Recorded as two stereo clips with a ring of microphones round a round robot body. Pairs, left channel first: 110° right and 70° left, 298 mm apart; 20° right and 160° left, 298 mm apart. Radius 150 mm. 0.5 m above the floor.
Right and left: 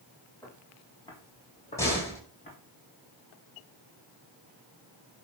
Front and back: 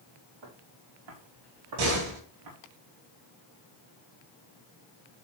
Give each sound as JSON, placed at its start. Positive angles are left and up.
{"t": 0.4, "sound": "footsteps", "azimuth_deg": 165, "distance_m": 4.0}
{"t": 1.8, "sound": "a door slam", "azimuth_deg": 165, "distance_m": 7.5}